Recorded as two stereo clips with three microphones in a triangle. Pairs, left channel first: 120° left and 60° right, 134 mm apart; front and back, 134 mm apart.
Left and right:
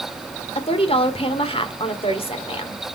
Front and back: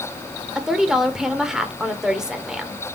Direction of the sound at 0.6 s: 95° left.